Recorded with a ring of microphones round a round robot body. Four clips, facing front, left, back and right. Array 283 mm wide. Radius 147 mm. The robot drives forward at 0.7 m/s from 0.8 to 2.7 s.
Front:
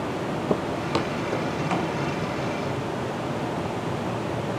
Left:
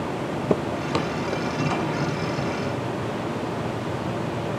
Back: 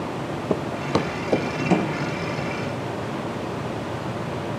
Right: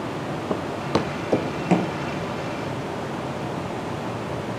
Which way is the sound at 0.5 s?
90° left.